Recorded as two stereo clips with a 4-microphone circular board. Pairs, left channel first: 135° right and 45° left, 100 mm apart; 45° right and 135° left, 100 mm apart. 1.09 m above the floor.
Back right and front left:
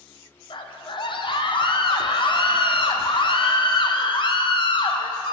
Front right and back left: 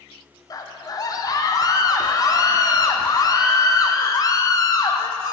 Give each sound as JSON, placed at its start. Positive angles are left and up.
{"t": 0.5, "sound": "a scream", "azimuth_deg": -100, "distance_m": 0.6}